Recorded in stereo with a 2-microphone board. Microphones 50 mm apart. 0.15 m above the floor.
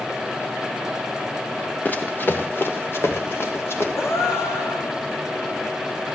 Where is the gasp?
65° left (ahead or behind), 2 m.